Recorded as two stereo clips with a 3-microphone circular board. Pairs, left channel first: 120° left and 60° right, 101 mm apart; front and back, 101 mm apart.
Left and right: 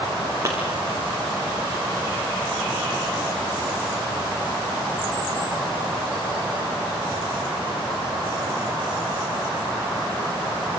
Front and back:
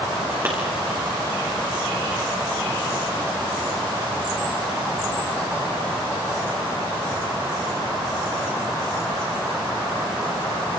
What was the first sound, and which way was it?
A clap, 115° right.